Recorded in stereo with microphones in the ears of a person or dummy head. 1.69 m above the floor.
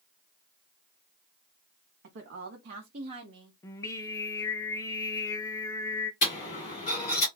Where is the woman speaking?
60° right (ahead or behind), 0.7 m; by 3.5 s 25° right (ahead or behind), 0.8 m.